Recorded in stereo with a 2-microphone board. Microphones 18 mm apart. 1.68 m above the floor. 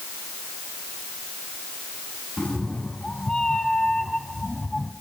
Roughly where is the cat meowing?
Left.